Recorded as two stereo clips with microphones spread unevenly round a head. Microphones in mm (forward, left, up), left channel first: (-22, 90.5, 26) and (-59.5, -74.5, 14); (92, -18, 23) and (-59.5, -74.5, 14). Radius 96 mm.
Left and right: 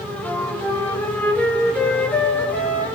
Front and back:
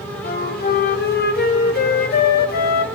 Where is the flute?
5° right, 1.1 m.